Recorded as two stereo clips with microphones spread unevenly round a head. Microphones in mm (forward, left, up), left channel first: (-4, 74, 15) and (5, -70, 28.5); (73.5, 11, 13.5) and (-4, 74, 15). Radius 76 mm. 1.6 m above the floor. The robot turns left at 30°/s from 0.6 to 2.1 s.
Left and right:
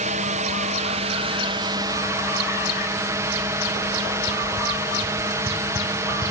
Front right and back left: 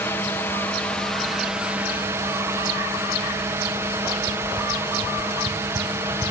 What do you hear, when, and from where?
0.0 s a drone: 110° right; by 6.3 s 155° right